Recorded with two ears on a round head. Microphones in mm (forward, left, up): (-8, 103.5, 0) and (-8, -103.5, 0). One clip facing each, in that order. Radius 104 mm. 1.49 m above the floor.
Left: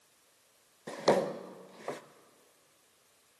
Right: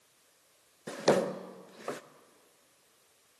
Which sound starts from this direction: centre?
A drawer, at 0.9 s.